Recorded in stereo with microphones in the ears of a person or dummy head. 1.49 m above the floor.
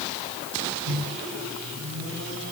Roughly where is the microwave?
Right.